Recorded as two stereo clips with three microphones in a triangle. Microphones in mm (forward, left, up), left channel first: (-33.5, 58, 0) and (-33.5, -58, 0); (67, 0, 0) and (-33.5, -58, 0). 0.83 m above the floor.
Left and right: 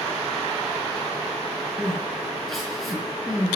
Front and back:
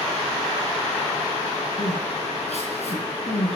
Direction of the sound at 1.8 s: Straight ahead.